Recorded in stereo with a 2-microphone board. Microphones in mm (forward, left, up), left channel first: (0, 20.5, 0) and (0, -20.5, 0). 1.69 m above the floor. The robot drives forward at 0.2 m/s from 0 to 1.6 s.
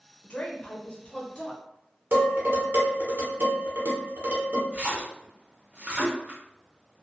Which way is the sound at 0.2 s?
40° left (ahead or behind).